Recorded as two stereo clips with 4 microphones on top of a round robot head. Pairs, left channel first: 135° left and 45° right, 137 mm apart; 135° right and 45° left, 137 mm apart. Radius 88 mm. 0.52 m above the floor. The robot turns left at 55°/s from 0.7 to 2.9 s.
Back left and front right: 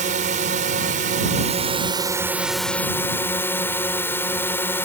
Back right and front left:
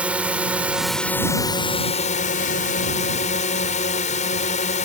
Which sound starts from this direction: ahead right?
A drone, at 0.0 s.